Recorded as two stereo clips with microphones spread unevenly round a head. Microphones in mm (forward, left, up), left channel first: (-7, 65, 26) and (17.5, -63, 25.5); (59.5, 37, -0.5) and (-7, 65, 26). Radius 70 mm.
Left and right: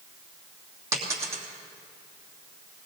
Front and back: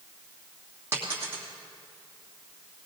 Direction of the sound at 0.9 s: 145° right.